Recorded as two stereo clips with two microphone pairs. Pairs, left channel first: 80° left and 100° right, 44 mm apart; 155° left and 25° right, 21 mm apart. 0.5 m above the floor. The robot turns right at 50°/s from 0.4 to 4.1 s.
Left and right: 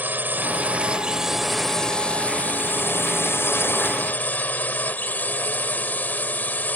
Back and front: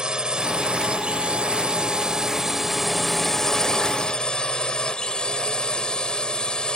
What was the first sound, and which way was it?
A drone, 65° right.